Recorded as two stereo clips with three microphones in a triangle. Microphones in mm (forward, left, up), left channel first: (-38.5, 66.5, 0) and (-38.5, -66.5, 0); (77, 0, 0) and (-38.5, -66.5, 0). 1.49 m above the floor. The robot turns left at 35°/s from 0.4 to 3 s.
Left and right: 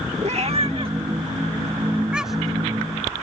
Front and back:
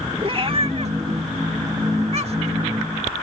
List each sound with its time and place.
0.2 s a cat meowing: 110° right; by 2.6 s 170° left